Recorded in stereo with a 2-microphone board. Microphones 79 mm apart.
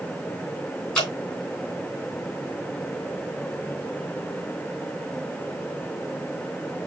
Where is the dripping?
10° left (ahead or behind), 3 m.